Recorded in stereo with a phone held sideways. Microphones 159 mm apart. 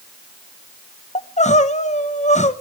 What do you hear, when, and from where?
1.1 s crying: 45° left (ahead or behind), 1.0 m